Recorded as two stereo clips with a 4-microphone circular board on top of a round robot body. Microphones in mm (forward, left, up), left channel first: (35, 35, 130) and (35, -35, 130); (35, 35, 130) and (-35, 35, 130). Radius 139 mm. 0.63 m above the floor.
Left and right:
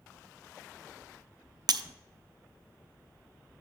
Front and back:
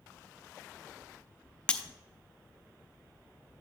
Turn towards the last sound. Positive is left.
turn(degrees=-75)